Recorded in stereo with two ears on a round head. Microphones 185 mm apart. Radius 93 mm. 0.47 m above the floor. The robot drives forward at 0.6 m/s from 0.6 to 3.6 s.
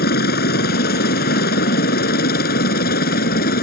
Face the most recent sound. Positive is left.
turn(degrees=50)  # may be behind; listen again after turning